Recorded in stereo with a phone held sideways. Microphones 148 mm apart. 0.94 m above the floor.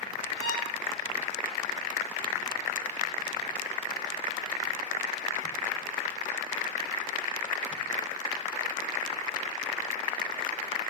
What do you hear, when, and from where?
0.4 s a violin: 25° left (ahead or behind), 2.5 m